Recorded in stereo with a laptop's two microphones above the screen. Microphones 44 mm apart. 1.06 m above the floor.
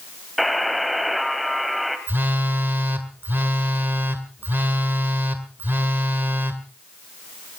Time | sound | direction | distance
0.4 | a buzzer | centre (ahead or behind) | 2 m
2.1 | a phone buzzing | 55° right (ahead or behind) | 2 m